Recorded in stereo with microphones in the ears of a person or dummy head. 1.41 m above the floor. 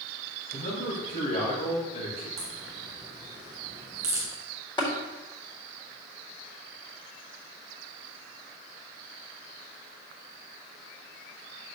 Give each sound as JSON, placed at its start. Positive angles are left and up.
{"t": 0.5, "sound": "a man speaking", "side_deg": 45, "distance_m": 1.8}
{"t": 2.4, "sound": "a crack", "side_deg": -15, "distance_m": 1.5}
{"t": 4.8, "sound": "tapping", "side_deg": 25, "distance_m": 3.5}